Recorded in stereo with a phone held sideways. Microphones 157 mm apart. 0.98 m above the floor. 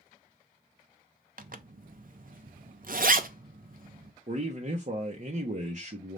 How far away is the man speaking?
About 0.7 m.